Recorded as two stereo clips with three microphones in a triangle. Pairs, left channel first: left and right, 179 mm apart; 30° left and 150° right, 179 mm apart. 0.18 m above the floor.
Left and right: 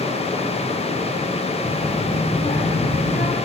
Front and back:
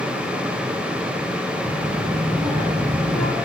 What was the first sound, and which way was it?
A child speaking, 100° left.